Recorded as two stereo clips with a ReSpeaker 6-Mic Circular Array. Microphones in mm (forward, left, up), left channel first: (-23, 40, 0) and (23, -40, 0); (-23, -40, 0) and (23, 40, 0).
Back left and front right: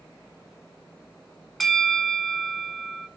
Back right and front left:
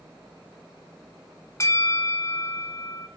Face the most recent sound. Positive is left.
turn(degrees=-150)